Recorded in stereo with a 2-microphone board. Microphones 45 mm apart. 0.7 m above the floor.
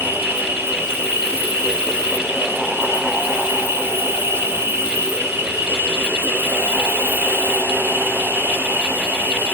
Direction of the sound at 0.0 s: 65° right (ahead or behind).